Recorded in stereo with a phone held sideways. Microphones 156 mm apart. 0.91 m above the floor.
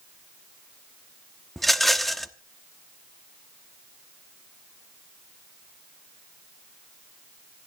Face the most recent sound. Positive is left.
turn(degrees=0)  # may be behind; listen again after turning